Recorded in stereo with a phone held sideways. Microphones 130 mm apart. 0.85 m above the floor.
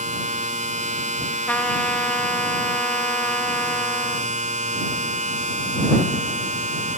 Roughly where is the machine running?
Right.